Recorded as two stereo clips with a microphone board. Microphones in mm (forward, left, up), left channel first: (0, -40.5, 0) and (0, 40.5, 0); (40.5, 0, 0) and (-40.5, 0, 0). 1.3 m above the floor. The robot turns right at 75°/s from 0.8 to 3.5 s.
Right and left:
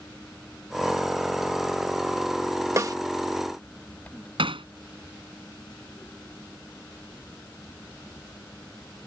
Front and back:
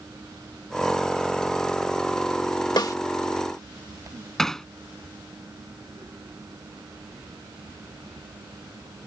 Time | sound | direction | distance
2.8 | a snare drum | 35° left | ?
4.4 | hammering | 85° left | ?